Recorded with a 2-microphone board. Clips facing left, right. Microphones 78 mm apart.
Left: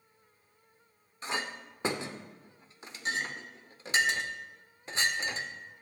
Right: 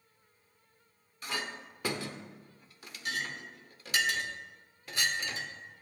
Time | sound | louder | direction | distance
1.2 | a clink | left 2 dB | 25° left (ahead or behind) | 0.6 m